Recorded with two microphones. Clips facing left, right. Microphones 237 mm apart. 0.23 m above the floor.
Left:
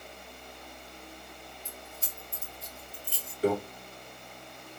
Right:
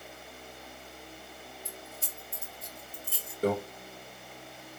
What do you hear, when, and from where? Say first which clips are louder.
1.6 s keys jangling: right 1 dB; 55° right (ahead or behind), 3 m
3.4 s a microwave: left 1 dB; 50° right (ahead or behind), 3 m